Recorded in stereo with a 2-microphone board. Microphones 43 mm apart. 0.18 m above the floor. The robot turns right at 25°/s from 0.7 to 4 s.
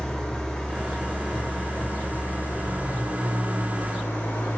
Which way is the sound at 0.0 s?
10° left.